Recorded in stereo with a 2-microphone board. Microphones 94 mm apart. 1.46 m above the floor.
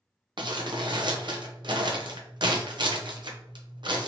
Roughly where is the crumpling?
Right.